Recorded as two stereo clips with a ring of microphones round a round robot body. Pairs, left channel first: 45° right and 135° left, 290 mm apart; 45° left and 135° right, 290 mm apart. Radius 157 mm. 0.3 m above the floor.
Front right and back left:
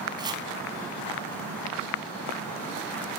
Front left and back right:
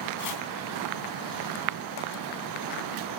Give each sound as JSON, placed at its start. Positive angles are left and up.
{"t": 0.2, "sound": "chopping", "azimuth_deg": 60, "distance_m": 2.5}